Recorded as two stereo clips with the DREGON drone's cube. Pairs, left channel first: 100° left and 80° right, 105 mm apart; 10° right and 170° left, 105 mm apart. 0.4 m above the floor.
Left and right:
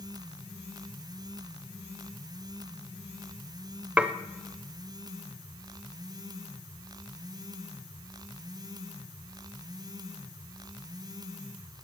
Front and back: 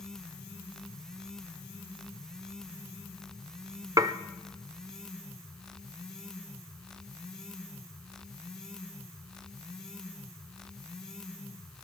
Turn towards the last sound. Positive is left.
turn(degrees=-150)